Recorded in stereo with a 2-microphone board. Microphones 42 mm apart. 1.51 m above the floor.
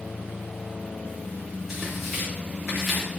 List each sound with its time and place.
1.7 s tearing paper: 5° right (ahead or behind), 5 m